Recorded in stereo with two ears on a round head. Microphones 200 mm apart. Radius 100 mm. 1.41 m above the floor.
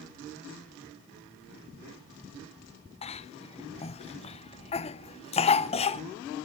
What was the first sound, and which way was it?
A cough, 25° left (ahead or behind).